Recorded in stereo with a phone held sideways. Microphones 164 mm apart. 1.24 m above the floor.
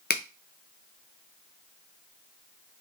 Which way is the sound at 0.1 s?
80° left.